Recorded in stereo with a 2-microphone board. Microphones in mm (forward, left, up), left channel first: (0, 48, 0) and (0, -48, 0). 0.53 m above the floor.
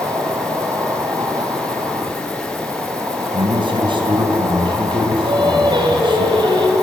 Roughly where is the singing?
Right.